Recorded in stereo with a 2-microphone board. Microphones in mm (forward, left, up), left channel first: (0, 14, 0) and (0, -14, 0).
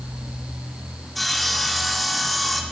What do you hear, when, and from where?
1.1 s sawing: centre (ahead or behind), 3 m